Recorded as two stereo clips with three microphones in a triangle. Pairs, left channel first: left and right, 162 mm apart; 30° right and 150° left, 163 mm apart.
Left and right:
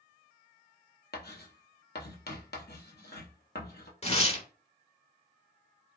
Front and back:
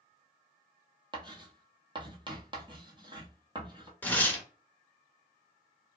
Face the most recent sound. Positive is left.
turn(degrees=50)